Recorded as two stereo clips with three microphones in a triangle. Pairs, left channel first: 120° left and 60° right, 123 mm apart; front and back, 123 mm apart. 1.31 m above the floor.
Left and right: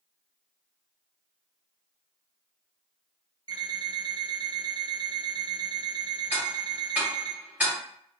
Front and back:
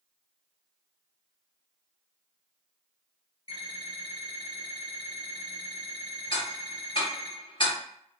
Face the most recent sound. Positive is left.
turn(degrees=15)